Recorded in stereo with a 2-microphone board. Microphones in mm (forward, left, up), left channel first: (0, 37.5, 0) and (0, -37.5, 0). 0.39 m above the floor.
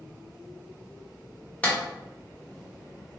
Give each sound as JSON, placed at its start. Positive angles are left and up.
{"t": 1.6, "sound": "a clap", "side_deg": 20, "distance_m": 1.1}